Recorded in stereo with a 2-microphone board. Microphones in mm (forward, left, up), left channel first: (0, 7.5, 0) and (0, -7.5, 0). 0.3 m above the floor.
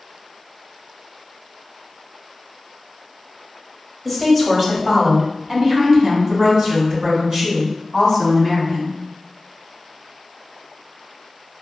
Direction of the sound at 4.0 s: Centre (ahead or behind).